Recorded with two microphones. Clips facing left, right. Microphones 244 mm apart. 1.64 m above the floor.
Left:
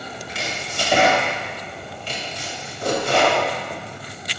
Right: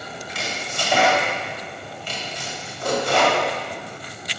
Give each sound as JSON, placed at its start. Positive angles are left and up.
{"t": 0.3, "sound": "chopping", "side_deg": 25, "distance_m": 2.0}